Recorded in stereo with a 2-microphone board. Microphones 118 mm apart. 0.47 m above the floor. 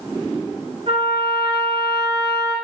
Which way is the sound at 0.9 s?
50° right (ahead or behind).